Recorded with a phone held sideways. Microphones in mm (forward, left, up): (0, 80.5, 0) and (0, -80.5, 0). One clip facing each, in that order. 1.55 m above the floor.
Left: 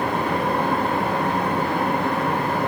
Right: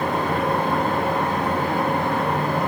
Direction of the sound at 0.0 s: 20° right (ahead or behind).